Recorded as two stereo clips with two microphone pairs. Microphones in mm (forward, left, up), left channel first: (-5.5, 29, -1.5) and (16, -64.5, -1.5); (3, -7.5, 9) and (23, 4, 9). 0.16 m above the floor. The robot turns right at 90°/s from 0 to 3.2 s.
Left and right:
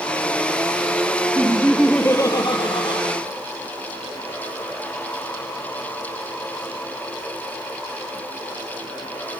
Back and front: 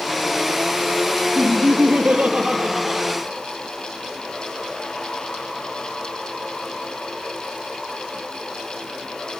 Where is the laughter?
30° right, 3 m; by 3.1 s 130° left, 3 m.